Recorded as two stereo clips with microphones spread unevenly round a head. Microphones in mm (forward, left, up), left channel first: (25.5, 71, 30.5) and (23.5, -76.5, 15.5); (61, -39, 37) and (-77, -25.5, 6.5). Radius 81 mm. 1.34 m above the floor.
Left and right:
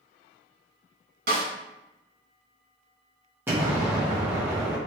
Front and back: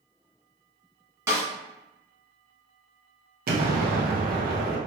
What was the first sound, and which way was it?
A snare drum, 110° right.